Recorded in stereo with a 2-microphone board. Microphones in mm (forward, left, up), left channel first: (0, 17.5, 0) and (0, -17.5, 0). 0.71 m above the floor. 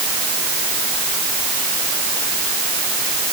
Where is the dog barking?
No dog barking in this recording.